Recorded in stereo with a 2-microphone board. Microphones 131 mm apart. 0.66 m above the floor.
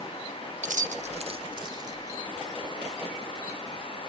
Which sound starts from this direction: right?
Keys jangling, at 0.6 s.